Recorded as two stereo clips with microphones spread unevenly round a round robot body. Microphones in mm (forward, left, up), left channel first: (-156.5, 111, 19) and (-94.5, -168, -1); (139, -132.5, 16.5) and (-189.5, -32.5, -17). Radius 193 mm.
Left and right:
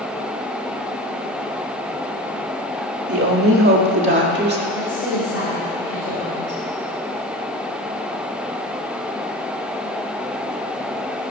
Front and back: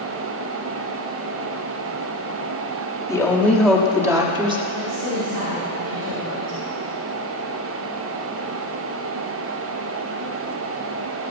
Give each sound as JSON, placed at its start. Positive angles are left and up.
{"t": 3.1, "sound": "a woman speaking", "azimuth_deg": -100, "distance_m": 1.9}
{"t": 4.7, "sound": "a woman speaking", "azimuth_deg": 135, "distance_m": 5.0}